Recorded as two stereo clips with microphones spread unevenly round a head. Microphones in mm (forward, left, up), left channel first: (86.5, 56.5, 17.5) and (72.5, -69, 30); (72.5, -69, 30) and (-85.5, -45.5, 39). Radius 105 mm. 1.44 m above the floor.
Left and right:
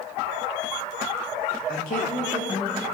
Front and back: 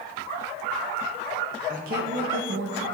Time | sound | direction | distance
1.7 | a woman speaking | 115° left | 0.9 m